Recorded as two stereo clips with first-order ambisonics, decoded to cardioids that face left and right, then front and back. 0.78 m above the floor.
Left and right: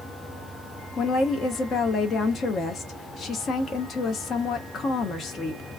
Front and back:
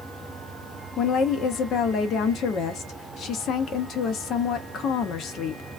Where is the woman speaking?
40° left, 0.7 m.